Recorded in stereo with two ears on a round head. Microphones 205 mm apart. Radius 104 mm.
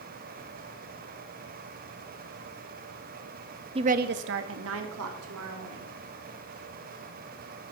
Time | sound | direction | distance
3.8 | a woman speaking | 20° right (ahead or behind) | 0.5 m